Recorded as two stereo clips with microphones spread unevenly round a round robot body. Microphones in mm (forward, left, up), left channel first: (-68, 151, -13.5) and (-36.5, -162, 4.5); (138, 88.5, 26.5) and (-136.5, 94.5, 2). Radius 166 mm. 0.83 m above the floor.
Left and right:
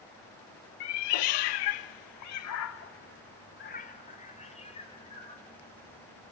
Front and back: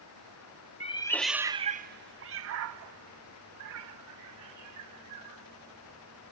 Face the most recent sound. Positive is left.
turn(degrees=170)